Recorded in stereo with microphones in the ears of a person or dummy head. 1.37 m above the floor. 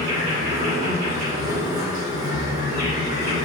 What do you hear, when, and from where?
0.0 s an insect: 55° right (ahead or behind), 1.7 m